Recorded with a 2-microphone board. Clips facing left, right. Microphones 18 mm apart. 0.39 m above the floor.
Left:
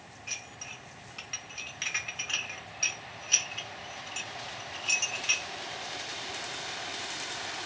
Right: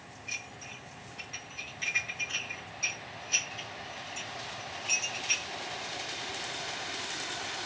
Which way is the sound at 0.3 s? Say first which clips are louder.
Even; 45° left (ahead or behind).